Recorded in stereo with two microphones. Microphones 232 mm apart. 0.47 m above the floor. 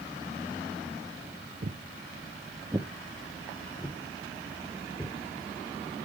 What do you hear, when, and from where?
1.6 s footsteps: 50° right (ahead or behind), 0.6 m; by 5.1 s 10° left (ahead or behind), 2 m